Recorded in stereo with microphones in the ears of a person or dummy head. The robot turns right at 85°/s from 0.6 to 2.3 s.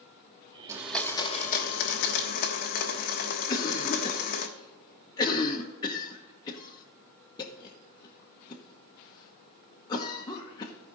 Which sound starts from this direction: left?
A cough, at 3.5 s.